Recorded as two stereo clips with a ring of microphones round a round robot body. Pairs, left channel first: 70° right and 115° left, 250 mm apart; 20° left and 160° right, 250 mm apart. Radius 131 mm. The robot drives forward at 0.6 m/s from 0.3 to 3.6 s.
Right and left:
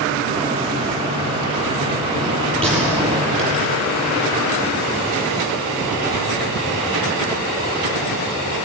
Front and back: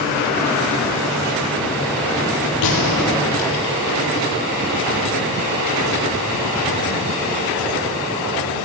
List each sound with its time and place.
2.6 s a gunshot: 20° left, 7 m